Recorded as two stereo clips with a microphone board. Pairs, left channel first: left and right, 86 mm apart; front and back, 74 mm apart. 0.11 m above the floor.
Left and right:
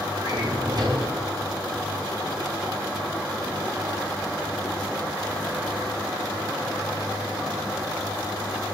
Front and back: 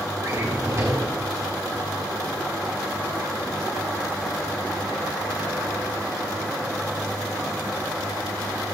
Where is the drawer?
125° right, 2.5 m.